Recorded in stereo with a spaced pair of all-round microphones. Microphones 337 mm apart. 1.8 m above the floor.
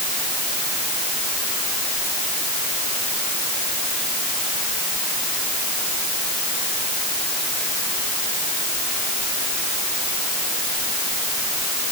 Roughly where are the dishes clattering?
I don't hear dishes clattering.